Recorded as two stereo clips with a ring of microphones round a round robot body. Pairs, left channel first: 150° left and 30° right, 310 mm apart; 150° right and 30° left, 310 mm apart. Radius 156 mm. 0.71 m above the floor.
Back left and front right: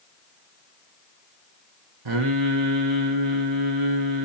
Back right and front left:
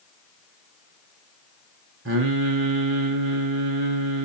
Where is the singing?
20° right, 2 m.